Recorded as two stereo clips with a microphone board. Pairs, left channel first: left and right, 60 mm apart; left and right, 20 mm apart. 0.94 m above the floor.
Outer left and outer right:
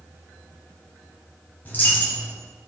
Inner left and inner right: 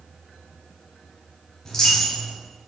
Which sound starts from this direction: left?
A dropped coin, at 1.6 s.